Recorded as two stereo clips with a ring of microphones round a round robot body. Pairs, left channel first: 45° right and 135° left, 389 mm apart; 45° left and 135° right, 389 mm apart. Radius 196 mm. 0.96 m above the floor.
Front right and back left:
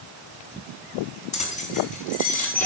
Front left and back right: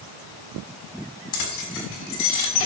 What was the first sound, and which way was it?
Keys jangling, 30° left.